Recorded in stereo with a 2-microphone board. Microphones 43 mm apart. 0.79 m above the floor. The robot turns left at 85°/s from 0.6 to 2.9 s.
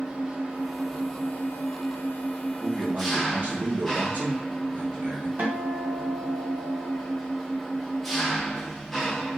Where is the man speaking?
25° right (ahead or behind), 1.6 m; by 5.3 s 45° right (ahead or behind), 1.6 m.